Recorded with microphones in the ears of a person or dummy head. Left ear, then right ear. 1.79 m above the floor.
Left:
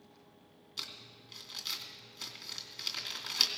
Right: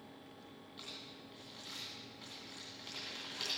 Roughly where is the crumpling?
Left.